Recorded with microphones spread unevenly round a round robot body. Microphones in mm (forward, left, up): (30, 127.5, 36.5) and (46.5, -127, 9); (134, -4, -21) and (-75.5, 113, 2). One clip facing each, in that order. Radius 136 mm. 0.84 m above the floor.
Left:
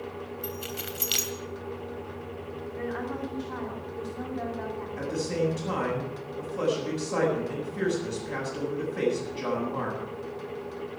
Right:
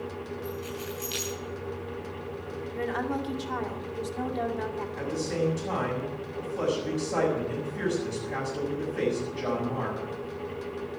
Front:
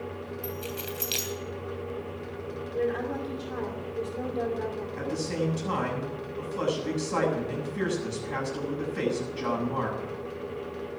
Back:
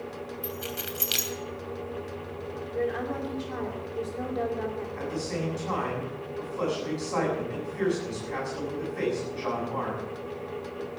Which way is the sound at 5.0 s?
15° left.